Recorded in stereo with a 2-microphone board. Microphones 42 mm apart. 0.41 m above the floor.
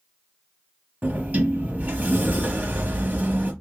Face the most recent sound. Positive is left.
turn(degrees=-45)  # may be behind; listen again after turning